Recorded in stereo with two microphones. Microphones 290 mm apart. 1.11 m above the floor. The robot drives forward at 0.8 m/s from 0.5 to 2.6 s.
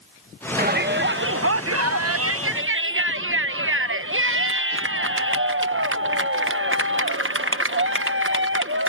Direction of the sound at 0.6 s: 30° right (ahead or behind).